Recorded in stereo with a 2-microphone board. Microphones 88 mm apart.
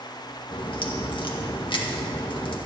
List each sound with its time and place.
0.5 s a crack: 65° left (ahead or behind), 1.8 m